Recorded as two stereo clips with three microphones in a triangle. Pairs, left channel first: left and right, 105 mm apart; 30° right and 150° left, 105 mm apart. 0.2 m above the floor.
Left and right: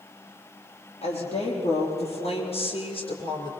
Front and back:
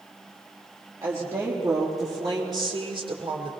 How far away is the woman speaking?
About 6.5 m.